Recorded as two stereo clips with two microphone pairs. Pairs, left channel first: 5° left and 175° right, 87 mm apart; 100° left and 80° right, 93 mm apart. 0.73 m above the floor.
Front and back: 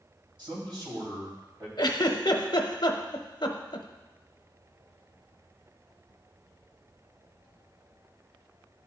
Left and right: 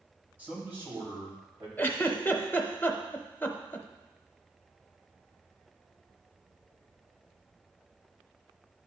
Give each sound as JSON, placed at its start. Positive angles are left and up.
{"t": 0.4, "sound": "a man speaking", "azimuth_deg": -155, "distance_m": 4.0}
{"t": 1.8, "sound": "a giggle", "azimuth_deg": 30, "distance_m": 0.7}